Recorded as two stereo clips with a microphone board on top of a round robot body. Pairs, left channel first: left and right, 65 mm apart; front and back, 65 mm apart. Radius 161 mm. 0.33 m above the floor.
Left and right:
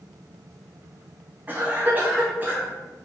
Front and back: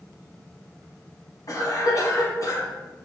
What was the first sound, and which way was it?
A cough, 30° right.